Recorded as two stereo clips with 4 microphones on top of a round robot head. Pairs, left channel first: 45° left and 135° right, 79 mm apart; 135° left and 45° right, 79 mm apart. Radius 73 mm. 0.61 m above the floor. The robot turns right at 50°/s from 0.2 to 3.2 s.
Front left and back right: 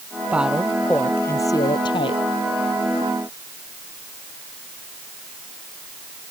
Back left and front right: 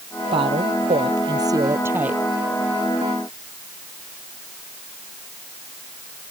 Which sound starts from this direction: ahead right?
A woman speaking, at 0.3 s.